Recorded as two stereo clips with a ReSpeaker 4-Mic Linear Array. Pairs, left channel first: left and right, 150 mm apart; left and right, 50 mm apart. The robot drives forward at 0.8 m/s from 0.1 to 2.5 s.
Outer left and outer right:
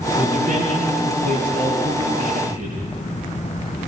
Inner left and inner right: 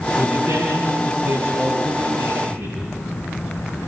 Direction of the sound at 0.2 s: 60° right (ahead or behind).